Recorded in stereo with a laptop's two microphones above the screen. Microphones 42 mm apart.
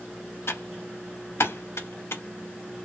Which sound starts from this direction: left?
Typing on a keyboard, at 0.5 s.